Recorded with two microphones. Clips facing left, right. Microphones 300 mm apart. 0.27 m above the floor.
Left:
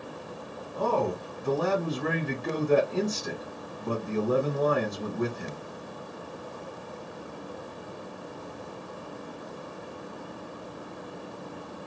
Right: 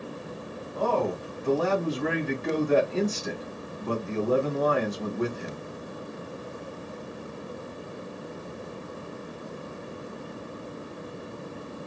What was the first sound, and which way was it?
A man speaking, 50° left (ahead or behind).